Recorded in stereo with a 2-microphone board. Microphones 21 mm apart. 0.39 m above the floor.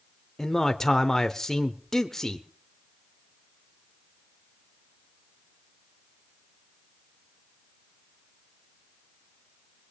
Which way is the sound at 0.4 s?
20° left (ahead or behind).